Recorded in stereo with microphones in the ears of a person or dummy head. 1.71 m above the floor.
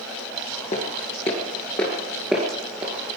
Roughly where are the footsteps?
Left.